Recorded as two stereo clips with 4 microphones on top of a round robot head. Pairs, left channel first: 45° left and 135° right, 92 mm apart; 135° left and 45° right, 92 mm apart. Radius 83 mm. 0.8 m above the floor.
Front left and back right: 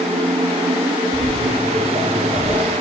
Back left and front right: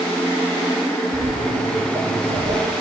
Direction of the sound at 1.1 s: 145° right.